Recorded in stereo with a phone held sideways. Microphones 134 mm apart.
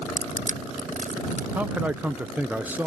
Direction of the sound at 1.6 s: 10° right (ahead or behind).